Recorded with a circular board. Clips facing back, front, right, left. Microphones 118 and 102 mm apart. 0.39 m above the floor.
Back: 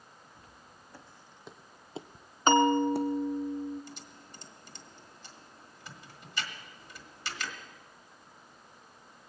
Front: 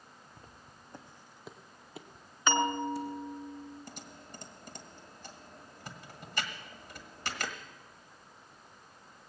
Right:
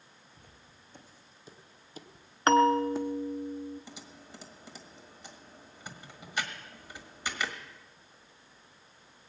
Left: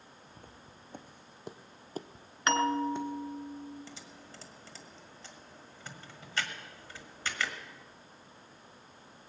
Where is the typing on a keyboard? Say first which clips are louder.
Front 1 dB, right 1 dB; 20° right, 1.5 m.